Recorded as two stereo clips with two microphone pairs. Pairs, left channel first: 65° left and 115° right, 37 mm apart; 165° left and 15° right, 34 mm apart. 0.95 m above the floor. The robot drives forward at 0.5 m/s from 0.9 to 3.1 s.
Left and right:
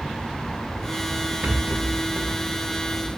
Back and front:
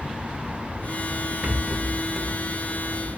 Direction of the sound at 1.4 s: 70° right.